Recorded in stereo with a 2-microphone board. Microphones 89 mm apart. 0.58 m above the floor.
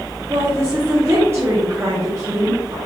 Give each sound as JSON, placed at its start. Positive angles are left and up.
{"t": 0.3, "sound": "a woman speaking", "side_deg": -30, "distance_m": 0.8}